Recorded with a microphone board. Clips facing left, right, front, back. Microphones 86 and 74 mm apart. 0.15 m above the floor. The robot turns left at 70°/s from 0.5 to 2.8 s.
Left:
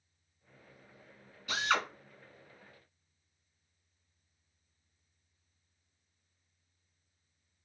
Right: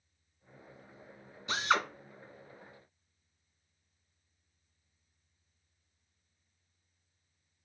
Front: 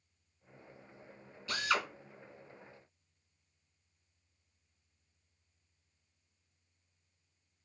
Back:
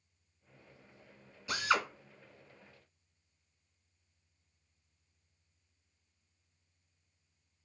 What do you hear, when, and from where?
1.5 s a drill: 120° right, 0.9 m; by 1.9 s 150° right, 0.9 m